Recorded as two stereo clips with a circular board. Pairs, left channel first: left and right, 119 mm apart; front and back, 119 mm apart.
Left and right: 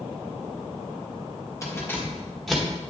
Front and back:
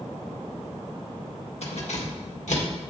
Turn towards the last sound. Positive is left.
turn(degrees=-5)